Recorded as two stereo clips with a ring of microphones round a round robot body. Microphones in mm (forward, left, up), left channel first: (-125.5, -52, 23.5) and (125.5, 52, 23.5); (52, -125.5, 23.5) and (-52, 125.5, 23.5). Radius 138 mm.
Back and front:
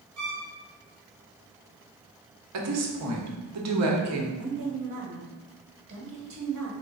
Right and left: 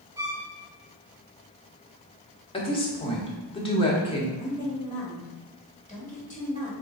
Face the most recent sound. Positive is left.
turn(degrees=-10)